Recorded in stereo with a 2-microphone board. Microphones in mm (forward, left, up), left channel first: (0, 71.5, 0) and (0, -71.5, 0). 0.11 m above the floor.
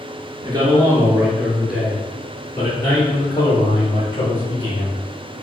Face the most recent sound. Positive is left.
turn(degrees=40)  # may be behind; listen again after turning